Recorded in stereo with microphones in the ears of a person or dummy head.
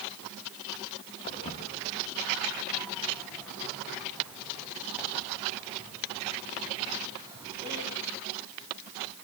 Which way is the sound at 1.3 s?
30° left (ahead or behind).